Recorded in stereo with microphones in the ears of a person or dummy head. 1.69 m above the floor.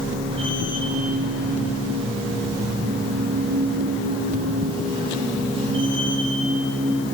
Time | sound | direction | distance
0.0 | a machine running | 35° right (ahead or behind) | 1.3 m